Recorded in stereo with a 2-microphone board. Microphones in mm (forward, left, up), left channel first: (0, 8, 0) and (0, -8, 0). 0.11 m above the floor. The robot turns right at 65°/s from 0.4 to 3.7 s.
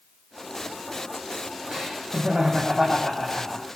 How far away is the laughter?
About 5 m.